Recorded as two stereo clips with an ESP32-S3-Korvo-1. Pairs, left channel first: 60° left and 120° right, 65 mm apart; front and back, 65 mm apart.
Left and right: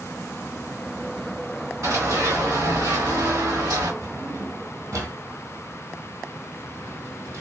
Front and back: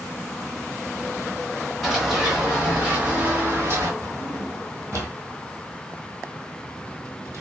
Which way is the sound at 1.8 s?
95° right.